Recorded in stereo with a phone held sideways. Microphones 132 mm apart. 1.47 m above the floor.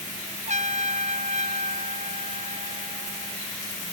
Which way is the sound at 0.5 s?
65° right (ahead or behind).